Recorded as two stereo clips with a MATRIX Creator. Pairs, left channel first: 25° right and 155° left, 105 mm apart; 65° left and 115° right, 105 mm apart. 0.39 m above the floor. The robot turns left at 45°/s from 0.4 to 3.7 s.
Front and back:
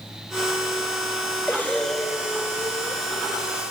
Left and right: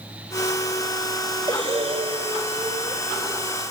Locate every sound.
1.5 s breathing: 90° right, 1.9 m; by 3.0 s 160° right, 1.9 m